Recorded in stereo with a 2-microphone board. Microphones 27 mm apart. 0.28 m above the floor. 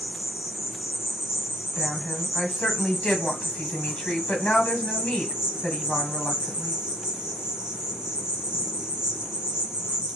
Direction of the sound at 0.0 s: 25° right (ahead or behind).